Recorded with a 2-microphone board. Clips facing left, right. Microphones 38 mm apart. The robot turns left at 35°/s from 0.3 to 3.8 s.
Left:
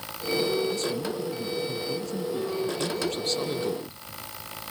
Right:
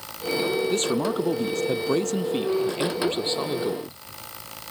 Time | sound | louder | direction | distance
0.7 | a man speaking | right 5 dB | 55° right | ?